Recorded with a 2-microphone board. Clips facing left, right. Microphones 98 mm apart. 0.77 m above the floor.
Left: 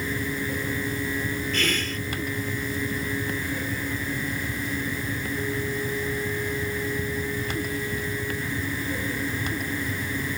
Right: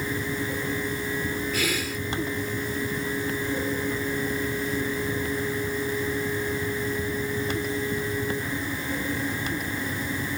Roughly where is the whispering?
Centre.